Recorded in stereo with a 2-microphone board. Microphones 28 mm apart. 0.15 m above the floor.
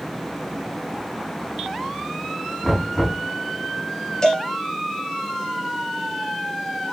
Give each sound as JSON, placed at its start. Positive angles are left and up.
{"t": 2.6, "sound": "knocking", "side_deg": 5, "distance_m": 7.0}
{"t": 4.2, "sound": "a cowbell", "side_deg": 30, "distance_m": 1.9}